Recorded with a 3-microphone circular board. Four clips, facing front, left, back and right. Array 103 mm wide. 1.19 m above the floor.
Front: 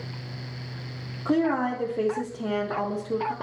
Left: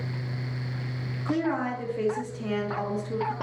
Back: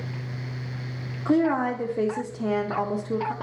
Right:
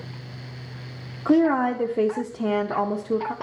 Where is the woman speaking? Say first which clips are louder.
Right 9 dB, back 2 dB; 100° right, 0.5 m.